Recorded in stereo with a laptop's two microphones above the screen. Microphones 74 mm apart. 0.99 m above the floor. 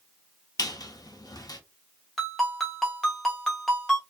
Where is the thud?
I don't hear a thud.